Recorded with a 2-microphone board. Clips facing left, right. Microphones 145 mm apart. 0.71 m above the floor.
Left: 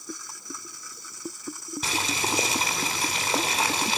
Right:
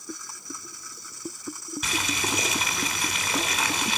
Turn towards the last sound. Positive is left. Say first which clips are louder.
# left 1 dB
turn(degrees=30)  # may be behind; listen again after turning